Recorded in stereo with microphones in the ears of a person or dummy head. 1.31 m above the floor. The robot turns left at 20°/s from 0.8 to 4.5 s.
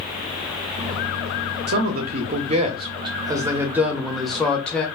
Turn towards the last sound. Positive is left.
turn(degrees=175)